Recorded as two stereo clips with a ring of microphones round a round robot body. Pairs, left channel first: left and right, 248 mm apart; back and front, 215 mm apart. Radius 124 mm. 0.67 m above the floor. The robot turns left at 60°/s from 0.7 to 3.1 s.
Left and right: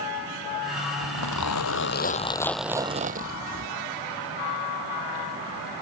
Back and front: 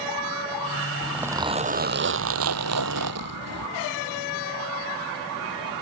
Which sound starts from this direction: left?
A zipper, at 1.0 s.